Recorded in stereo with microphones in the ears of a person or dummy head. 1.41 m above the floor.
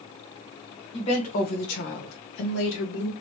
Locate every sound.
0.9 s a woman speaking: 30° left (ahead or behind), 1.5 m; by 3.1 s 70° left (ahead or behind), 1.6 m